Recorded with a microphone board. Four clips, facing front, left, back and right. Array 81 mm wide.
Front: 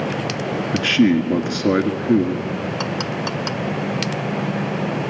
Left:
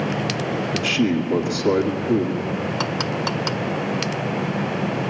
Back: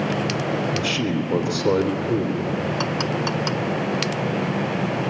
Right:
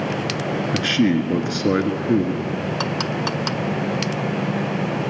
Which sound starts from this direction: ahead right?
A man speaking, at 0.7 s.